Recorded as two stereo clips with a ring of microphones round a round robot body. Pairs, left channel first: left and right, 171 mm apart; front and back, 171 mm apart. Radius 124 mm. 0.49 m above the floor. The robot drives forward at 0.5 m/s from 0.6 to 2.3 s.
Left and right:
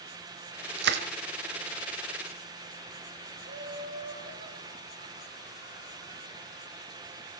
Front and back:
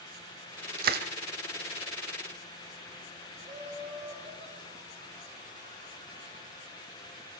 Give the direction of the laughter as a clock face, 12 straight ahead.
4 o'clock.